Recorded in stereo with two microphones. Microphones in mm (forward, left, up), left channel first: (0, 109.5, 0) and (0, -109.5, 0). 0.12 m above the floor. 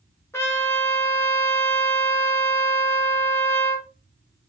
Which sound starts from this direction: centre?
A trumpet, at 0.3 s.